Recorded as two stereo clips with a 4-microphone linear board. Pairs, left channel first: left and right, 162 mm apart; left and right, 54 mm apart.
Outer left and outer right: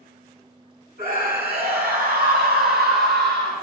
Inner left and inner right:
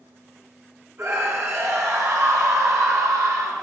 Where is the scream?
65° right (ahead or behind), 5.5 m; by 3.6 s 80° right, 3.5 m.